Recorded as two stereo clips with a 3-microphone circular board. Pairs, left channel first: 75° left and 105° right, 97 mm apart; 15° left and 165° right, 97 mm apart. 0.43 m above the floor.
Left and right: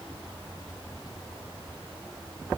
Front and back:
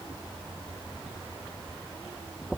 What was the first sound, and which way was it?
Only background noise.